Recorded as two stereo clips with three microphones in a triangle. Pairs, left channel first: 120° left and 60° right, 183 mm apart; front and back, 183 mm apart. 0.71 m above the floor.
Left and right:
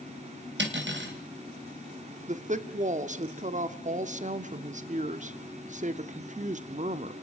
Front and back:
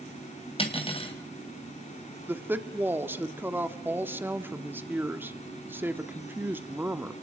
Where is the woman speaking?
100° right, 1.3 m.